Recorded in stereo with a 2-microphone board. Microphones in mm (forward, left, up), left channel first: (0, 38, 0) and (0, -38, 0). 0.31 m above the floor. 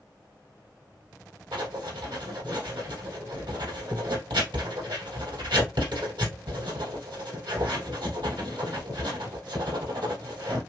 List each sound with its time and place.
1.5 s writing: 75° right (ahead or behind), 4 m